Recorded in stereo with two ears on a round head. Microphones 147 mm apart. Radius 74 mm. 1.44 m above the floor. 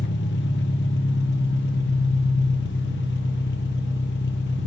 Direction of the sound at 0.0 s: 80° left.